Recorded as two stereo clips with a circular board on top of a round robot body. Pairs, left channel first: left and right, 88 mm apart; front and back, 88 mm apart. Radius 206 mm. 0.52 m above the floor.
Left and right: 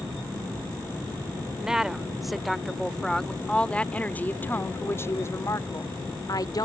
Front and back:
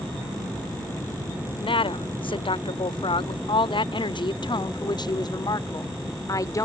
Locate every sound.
1.6 s a woman speaking: 10° right; by 6.7 s 50° left